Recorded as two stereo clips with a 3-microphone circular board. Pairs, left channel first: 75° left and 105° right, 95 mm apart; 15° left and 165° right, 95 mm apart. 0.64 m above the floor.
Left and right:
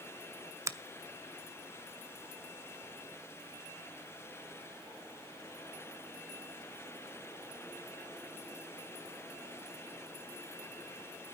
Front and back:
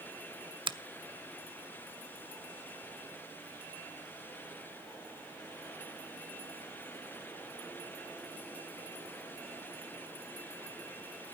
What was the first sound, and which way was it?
A finger snap, 160° right.